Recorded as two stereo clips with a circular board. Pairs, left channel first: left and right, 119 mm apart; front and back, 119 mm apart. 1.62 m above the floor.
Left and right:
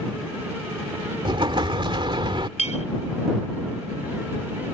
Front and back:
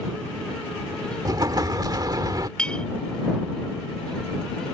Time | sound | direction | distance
1.2 | an explosion | 130° right | ?
2.6 | a clink | 80° left | ?